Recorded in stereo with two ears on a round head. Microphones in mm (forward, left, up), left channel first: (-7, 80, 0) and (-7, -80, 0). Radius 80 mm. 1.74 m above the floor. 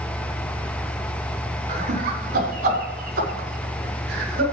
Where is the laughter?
45° right (ahead or behind), 5 m; by 4.4 s 60° right (ahead or behind), 6 m.